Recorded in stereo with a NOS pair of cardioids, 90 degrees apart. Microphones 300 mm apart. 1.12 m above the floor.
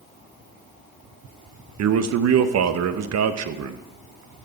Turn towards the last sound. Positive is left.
turn(degrees=-55)